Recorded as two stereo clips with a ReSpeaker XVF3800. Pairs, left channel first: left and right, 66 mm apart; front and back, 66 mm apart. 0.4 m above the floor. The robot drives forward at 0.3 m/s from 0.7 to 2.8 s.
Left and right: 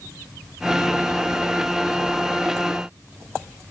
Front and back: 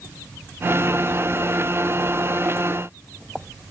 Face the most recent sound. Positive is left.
No sound to turn to.